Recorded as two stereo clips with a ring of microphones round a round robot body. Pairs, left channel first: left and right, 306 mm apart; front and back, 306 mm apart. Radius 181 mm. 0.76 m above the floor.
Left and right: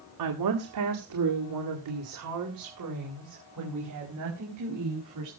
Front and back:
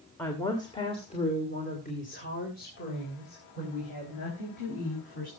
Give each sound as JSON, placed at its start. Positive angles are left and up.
{"t": 0.2, "sound": "a woman speaking", "azimuth_deg": -85, "distance_m": 1.4}